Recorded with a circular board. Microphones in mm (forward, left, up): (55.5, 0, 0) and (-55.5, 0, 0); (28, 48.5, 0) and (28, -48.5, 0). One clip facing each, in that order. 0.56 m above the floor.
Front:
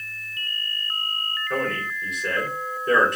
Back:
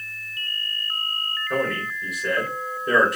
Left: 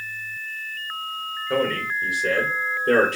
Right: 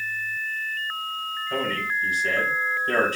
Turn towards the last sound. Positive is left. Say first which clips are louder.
# back 2 dB, left 5 dB
turn(degrees=95)